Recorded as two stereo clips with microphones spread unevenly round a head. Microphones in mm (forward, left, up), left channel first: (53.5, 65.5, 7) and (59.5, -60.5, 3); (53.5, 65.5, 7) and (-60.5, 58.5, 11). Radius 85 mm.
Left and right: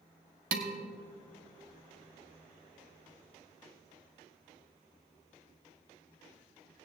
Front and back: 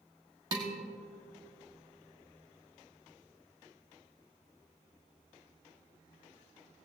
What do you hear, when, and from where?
0.5 s dishes clattering: 110° right, 1.3 m